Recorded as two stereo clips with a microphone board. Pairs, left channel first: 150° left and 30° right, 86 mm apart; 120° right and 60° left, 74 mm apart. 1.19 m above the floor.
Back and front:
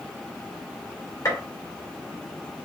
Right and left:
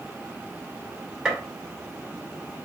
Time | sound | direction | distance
1.2 | a gunshot | 135° left | 1.0 m